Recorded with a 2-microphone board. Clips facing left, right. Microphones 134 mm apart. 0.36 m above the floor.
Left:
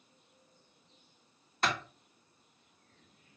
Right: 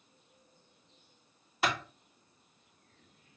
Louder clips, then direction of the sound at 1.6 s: Right 1 dB; 5° right (ahead or behind).